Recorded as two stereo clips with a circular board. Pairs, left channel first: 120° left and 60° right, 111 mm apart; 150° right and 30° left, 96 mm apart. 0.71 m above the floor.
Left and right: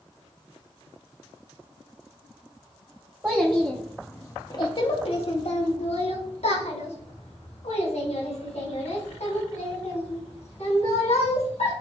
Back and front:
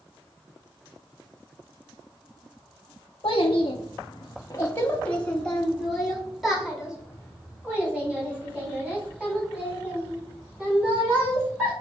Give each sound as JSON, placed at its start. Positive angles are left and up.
{"t": 3.2, "sound": "a child speaking", "azimuth_deg": -135, "distance_m": 0.9}